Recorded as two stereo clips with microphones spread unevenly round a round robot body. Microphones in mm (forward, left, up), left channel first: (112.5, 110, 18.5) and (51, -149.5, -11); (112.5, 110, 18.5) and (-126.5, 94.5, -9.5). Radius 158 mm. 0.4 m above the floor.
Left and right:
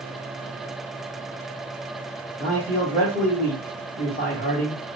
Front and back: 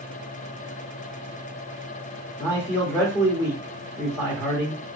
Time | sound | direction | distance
2.4 | a man speaking | 80° left | 1.1 m